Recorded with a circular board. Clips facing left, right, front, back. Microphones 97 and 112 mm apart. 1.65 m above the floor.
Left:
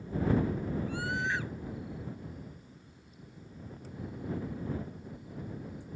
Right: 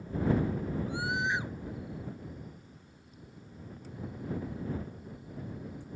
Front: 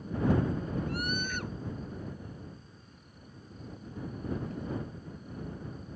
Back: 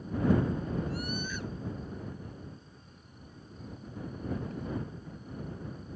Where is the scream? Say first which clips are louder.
Right 1 dB, front 2 dB; 20° right.